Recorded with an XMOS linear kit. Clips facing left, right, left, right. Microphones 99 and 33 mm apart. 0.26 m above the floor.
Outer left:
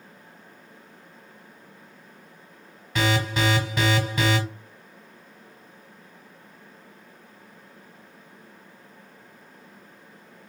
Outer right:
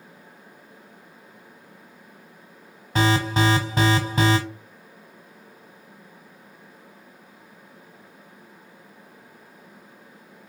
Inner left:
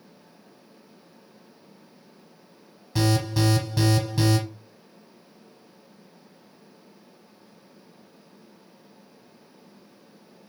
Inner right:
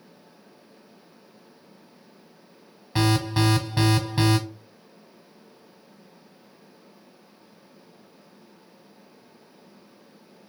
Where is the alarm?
30° right (ahead or behind), 0.9 m.